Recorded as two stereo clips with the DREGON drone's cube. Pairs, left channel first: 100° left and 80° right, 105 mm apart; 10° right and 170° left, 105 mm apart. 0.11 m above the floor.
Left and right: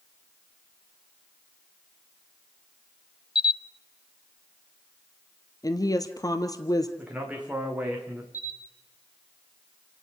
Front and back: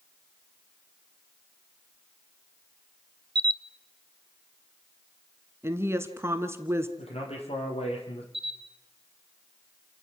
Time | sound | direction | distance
3.4 | a camera shutter | 130° left | 0.6 m
5.6 | a woman speaking | 120° left | 1.4 m
7.0 | a man speaking | straight ahead | 6.5 m
8.3 | a camera shutter | 150° left | 2.5 m